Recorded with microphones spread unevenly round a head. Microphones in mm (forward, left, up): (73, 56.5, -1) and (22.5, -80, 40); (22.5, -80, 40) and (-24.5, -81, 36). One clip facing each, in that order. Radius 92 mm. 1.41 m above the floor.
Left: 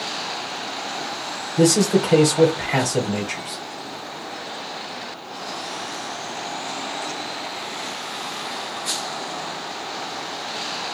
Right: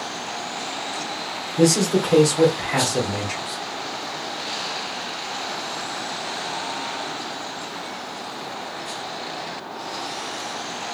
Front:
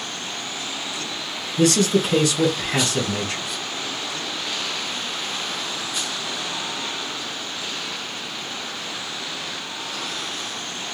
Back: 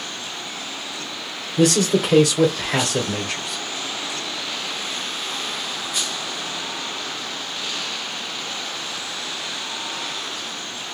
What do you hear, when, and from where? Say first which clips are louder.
1.6 s a man speaking: left 1 dB, back 1 dB; 140° left, 0.9 m